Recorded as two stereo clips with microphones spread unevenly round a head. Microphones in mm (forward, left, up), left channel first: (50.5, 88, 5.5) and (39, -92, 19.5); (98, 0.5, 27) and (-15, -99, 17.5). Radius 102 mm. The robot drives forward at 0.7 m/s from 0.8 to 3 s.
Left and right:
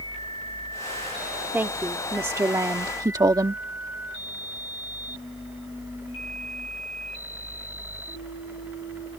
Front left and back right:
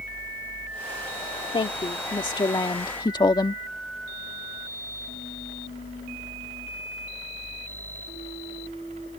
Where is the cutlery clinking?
No cutlery clinking in this recording.